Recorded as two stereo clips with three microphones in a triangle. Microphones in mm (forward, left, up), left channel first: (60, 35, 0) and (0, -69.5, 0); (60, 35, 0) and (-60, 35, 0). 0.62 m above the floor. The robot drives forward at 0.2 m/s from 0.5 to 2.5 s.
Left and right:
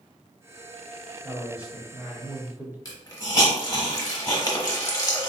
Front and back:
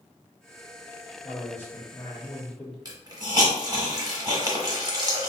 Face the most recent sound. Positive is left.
turn(degrees=120)